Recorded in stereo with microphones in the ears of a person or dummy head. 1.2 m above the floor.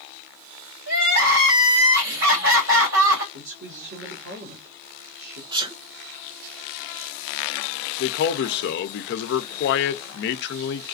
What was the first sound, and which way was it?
Crying, 70° right (ahead or behind).